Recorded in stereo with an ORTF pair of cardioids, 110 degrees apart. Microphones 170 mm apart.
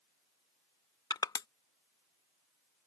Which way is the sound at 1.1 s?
25° left.